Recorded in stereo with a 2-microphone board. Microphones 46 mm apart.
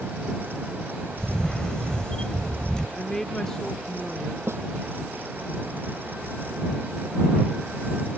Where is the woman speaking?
10° left (ahead or behind).